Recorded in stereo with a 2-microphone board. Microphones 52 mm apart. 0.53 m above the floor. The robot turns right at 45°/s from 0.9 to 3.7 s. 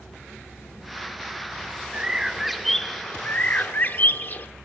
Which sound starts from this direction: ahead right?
A bird, at 1.9 s.